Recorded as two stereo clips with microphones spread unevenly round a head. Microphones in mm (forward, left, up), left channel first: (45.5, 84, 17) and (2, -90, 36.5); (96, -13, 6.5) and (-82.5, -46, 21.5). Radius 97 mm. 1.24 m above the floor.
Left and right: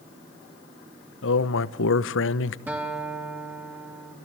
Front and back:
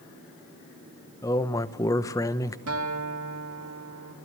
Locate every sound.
1.2 s a man speaking: 85° left, 0.8 m
2.7 s a guitar: 175° left, 2.5 m